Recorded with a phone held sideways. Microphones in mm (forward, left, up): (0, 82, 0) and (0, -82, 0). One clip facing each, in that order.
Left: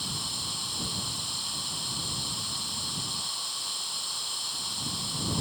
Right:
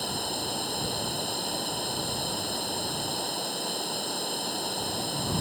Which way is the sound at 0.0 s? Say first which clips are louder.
Right 9 dB; 60° right (ahead or behind).